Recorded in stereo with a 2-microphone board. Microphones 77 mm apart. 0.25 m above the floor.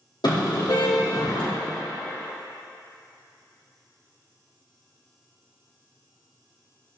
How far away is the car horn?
About 5.5 m.